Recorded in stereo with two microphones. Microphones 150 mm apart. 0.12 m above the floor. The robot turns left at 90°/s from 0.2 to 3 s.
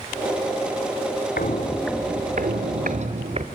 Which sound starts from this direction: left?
Footsteps, at 1.4 s.